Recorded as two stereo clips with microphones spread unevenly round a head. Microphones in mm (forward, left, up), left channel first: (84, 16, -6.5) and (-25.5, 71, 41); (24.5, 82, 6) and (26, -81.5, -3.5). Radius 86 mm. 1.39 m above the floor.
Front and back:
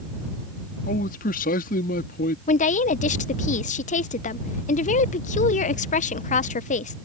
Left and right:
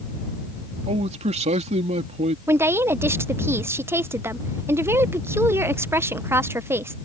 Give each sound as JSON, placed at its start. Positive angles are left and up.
{"t": 0.9, "sound": "a man speaking", "azimuth_deg": -40}
{"t": 2.5, "sound": "a woman speaking", "azimuth_deg": -15}